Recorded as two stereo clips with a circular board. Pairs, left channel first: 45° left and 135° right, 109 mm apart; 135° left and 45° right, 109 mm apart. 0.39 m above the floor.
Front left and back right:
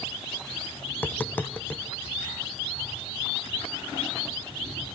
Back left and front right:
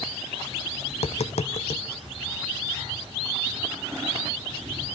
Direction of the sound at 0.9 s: 120° left.